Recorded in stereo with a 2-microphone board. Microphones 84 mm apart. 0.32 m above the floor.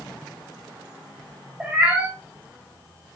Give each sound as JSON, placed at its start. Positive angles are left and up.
{"t": 1.6, "sound": "a cat meowing", "side_deg": -15, "distance_m": 2.5}